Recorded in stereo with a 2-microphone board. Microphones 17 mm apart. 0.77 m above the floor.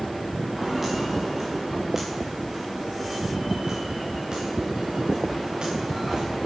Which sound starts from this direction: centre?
Footsteps, at 0.6 s.